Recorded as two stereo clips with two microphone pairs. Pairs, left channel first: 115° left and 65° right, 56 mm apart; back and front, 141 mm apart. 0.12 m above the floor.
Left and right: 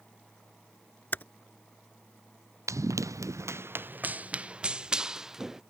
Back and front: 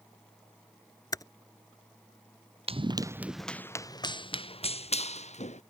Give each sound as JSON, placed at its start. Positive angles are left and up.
{"t": 1.1, "sound": "typing on a keyboard", "azimuth_deg": 130}
{"t": 2.7, "sound": "running footsteps", "azimuth_deg": -45}